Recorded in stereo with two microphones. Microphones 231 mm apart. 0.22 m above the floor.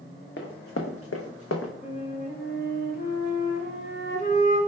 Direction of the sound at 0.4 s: 50° left (ahead or behind).